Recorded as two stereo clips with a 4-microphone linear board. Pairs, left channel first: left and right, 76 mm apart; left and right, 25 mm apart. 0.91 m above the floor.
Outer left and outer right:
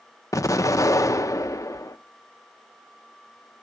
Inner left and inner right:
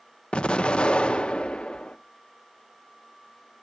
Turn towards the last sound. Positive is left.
turn(degrees=45)  # may be behind; listen again after turning